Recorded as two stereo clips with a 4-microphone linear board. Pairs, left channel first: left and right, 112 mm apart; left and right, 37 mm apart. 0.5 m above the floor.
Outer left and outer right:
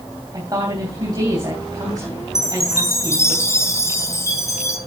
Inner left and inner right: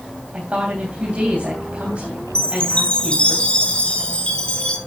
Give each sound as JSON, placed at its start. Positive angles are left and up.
{"t": 0.3, "sound": "a woman speaking", "side_deg": -35, "distance_m": 3.0}
{"t": 2.4, "sound": "a chime", "side_deg": 25, "distance_m": 2.5}